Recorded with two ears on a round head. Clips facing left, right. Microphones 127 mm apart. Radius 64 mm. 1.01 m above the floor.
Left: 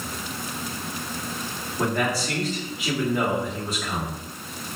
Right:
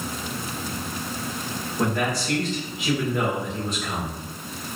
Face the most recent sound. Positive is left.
turn(degrees=0)  # may be behind; listen again after turning